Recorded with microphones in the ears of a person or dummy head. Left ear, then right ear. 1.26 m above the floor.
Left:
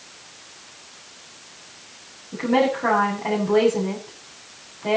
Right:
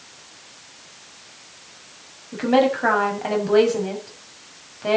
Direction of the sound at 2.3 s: 40° right (ahead or behind).